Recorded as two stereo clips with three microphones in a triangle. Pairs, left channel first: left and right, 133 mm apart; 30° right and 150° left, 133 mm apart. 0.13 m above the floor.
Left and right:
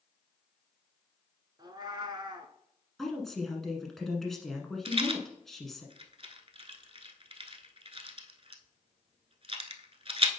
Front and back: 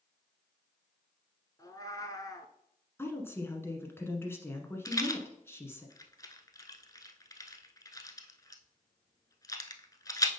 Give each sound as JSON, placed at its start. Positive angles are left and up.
{"t": 1.6, "sound": "a cat meowing", "azimuth_deg": -70, "distance_m": 0.7}
{"t": 3.0, "sound": "a woman speaking", "azimuth_deg": 5, "distance_m": 1.2}
{"t": 4.8, "sound": "a rattle", "azimuth_deg": -85, "distance_m": 0.7}